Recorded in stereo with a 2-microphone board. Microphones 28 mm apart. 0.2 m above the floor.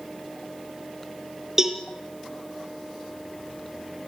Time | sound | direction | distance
1.6 | a cowbell | 20° right (ahead or behind) | 2.5 m